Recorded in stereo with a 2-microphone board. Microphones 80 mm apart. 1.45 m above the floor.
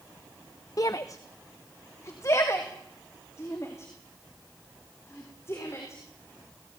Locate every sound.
0.8 s a shout: 45° left (ahead or behind), 0.6 m; by 6.0 s 35° left (ahead or behind), 4.5 m